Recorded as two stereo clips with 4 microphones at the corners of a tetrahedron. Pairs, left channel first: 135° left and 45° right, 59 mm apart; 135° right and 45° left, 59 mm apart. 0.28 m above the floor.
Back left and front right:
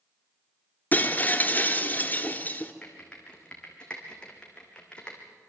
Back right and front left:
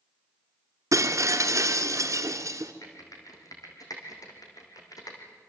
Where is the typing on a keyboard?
150° right, 4 m.